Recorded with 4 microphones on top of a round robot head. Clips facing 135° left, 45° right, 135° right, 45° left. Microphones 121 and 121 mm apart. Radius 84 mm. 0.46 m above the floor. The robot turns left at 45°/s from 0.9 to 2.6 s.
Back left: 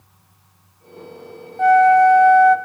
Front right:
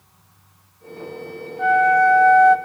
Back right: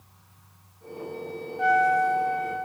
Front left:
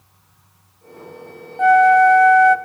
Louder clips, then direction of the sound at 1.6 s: Back left 5 dB, front left 10 dB; 85° left.